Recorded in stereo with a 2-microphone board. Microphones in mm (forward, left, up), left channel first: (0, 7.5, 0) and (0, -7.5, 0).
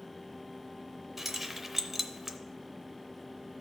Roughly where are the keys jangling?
Centre.